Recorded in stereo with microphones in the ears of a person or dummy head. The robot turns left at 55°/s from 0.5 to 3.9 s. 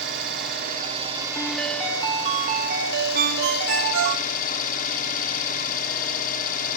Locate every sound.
0.0 s an engine running: 120° right, 1.5 m; by 6.8 s 55° left, 1.5 m
1.4 s a ringtone: 20° left, 0.9 m; by 4.2 s 120° right, 0.9 m
3.1 s a ringtone: 45° right, 1.3 m; by 4.3 s 90° right, 1.3 m